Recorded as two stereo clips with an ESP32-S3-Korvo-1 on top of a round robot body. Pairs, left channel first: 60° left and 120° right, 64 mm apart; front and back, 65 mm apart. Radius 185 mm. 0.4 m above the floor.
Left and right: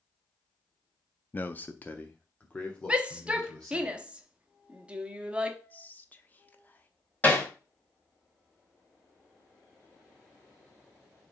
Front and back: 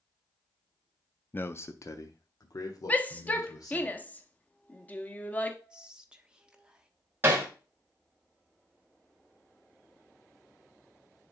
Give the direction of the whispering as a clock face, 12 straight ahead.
8 o'clock.